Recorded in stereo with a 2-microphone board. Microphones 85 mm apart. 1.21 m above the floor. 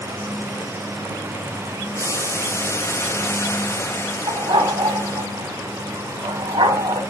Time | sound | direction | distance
1.9 | boiling | 30° left (ahead or behind) | 0.8 m
4.3 | a dog barking | 70° right (ahead or behind) | 2.5 m